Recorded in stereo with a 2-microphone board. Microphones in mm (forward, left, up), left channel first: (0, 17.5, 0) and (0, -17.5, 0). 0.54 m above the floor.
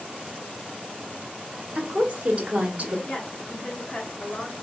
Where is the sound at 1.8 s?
40° right (ahead or behind), 1.2 m.